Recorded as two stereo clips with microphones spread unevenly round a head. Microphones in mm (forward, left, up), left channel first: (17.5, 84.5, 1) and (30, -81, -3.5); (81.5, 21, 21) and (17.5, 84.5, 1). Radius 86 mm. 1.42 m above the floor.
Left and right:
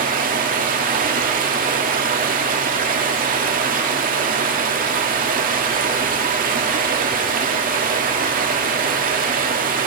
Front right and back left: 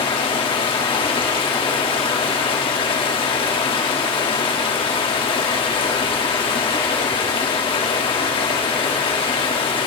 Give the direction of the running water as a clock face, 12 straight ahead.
2 o'clock.